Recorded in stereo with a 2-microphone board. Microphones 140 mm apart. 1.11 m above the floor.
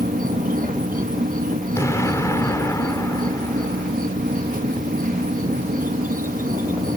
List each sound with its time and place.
0.0 s an insect: 80° right
1.8 s an explosion: 20° left (ahead or behind)